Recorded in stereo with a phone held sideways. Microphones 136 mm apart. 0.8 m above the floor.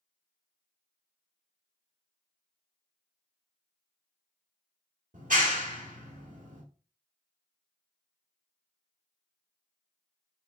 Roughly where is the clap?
Right.